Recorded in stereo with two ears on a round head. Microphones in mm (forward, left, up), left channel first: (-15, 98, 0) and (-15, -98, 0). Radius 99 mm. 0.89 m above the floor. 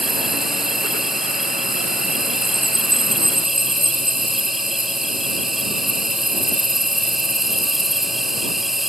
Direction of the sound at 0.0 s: Centre (ahead or behind).